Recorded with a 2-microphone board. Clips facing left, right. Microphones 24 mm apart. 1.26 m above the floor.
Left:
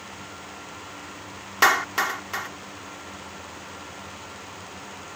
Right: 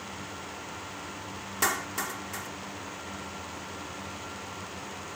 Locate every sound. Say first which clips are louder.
1.6 s a clap: left 10 dB; 50° left (ahead or behind)